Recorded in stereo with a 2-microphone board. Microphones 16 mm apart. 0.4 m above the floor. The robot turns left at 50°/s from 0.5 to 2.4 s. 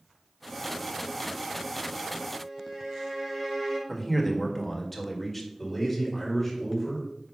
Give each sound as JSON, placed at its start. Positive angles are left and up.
{"t": 2.3, "sound": "a violin", "side_deg": -20, "distance_m": 3.0}
{"t": 3.9, "sound": "a man speaking", "side_deg": 10, "distance_m": 1.6}
{"t": 5.6, "sound": "a man speaking", "side_deg": 5, "distance_m": 3.0}